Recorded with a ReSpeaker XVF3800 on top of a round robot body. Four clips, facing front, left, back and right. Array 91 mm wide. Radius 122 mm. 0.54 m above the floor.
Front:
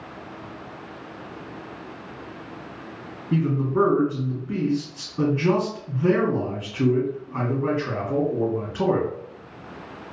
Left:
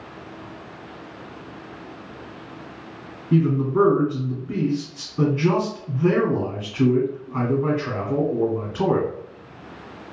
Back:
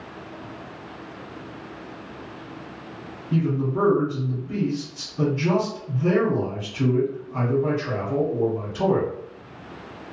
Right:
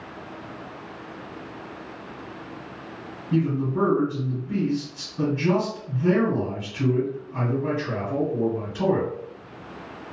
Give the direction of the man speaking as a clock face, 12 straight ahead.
10 o'clock.